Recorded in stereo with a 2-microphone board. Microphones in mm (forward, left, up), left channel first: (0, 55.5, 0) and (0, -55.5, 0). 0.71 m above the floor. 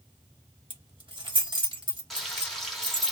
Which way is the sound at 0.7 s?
50° right (ahead or behind).